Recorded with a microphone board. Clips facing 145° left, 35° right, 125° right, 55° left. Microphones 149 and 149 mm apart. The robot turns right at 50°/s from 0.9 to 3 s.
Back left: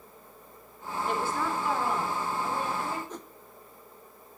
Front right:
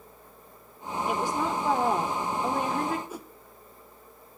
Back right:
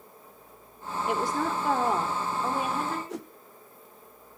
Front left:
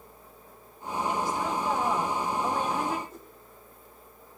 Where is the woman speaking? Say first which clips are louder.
Front right 2 dB, back right 2 dB; 120° right, 3.5 m; by 3.0 s 25° right, 3.5 m.